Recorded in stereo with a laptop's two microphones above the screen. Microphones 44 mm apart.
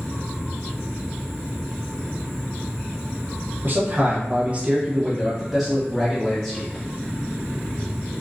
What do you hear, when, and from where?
3.6 s a man speaking: 45° right (ahead or behind), 0.8 m; by 6.8 s 25° left (ahead or behind), 1.2 m